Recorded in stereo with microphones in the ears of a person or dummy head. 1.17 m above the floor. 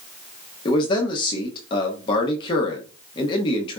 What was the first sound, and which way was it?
A man speaking, 25° left (ahead or behind).